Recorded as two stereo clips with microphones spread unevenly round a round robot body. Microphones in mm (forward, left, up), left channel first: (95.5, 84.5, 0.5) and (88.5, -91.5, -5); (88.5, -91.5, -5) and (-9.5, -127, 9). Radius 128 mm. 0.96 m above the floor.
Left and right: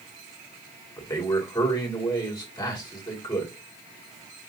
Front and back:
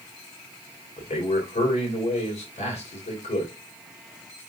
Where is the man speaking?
20° left, 1.9 m.